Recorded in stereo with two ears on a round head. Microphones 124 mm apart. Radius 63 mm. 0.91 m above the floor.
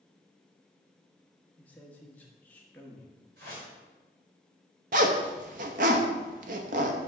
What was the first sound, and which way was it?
A man speaking, 10° left (ahead or behind).